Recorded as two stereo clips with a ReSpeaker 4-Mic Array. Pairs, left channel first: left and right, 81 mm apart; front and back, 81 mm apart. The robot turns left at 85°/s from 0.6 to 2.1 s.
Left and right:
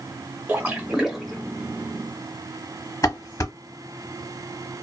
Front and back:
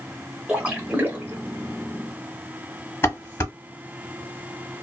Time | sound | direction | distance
0.5 | a splash | 125° right | 0.8 m
3.0 | dishes clattering | 50° left | 1.3 m